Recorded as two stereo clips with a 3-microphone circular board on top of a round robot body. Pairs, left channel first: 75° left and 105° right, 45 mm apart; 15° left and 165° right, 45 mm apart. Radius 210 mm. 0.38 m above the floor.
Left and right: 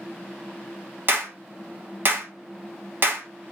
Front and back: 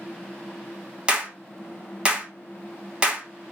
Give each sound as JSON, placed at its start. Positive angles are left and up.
{"t": 1.1, "sound": "a clap", "azimuth_deg": -105, "distance_m": 1.2}